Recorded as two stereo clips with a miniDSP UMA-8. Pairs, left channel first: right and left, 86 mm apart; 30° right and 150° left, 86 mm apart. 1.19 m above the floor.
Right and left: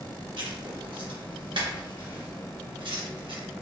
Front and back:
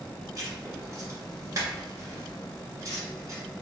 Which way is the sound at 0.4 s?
100° left.